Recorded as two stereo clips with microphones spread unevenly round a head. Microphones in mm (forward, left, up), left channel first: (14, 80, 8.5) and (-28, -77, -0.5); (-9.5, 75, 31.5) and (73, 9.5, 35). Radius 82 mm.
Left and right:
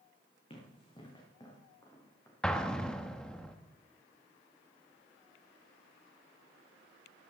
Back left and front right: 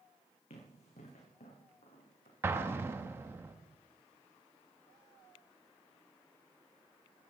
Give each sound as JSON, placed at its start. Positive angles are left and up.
{"t": 0.5, "sound": "running footsteps", "azimuth_deg": 130, "distance_m": 4.0}
{"t": 2.4, "sound": "an explosion", "azimuth_deg": 0, "distance_m": 0.7}